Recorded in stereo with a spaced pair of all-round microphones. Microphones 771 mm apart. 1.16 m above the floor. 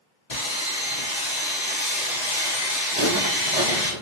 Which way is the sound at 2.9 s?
60° right (ahead or behind).